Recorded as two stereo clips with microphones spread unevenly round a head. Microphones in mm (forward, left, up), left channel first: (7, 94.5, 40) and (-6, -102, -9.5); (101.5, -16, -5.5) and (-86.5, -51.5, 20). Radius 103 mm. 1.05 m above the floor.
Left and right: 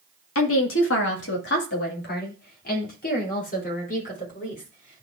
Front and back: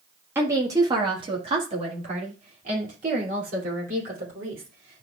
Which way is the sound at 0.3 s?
110° left.